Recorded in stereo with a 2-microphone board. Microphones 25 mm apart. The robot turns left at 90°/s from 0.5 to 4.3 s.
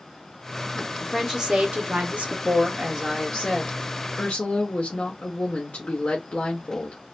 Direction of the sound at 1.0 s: 10° left.